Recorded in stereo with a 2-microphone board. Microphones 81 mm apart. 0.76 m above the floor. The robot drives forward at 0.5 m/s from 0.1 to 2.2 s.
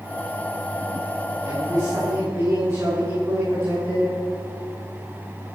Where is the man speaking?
50° right (ahead or behind), 7 m.